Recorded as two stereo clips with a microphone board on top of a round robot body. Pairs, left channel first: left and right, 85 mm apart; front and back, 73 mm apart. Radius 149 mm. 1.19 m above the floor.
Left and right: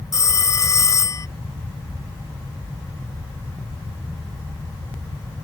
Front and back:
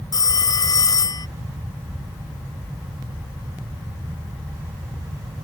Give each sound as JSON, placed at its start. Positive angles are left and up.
{"t": 0.1, "sound": "a phone ringing", "azimuth_deg": 35}